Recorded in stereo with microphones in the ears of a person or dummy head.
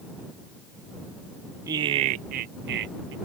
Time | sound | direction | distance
1.7 | laughter | 20° right (ahead or behind) | ?